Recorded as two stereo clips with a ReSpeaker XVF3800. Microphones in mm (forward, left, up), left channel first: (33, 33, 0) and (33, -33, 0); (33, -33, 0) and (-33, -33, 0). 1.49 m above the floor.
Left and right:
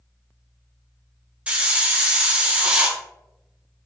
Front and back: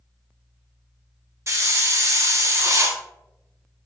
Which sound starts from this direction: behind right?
A hiss, at 1.5 s.